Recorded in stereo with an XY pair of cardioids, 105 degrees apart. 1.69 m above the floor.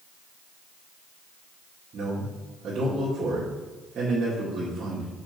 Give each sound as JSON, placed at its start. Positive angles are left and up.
{"t": 1.9, "sound": "a man speaking", "azimuth_deg": -50, "distance_m": 1.9}